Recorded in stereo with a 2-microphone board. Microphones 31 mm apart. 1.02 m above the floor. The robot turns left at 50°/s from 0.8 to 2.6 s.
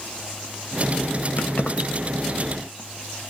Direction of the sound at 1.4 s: 65° left (ahead or behind).